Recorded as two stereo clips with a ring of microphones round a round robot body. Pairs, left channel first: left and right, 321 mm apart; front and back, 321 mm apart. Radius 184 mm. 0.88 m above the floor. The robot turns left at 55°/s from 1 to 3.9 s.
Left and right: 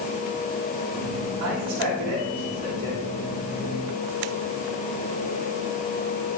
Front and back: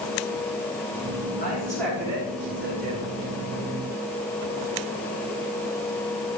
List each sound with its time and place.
1.4 s a man speaking: 65° right, 7.5 m; by 3.0 s 150° right, 7.5 m